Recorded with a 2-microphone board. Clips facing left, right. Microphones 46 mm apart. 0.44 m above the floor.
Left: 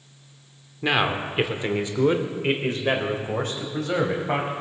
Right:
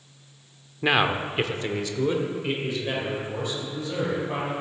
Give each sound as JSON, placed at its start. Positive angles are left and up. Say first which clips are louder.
{"t": 0.8, "sound": "a man speaking", "louder": "right 1 dB", "side_deg": -10, "distance_m": 0.8}